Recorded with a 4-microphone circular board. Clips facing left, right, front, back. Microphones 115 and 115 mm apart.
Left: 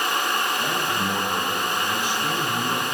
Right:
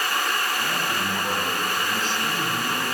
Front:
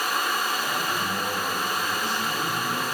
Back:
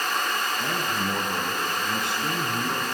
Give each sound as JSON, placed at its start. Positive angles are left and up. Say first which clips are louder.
{"t": 0.6, "sound": "a man speaking", "louder": "left 2 dB, even", "azimuth_deg": 170, "distance_m": 6.0}